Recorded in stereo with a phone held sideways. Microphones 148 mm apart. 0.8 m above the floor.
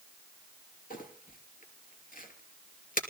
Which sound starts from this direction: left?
Crumpling, at 0.9 s.